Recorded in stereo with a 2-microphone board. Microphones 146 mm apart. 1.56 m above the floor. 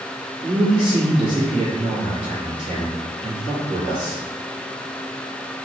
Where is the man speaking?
65° right (ahead or behind), 1.8 m.